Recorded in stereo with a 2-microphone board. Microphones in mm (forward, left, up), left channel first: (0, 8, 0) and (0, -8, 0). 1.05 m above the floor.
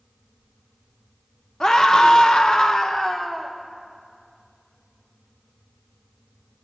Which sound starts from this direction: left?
A scream, at 1.6 s.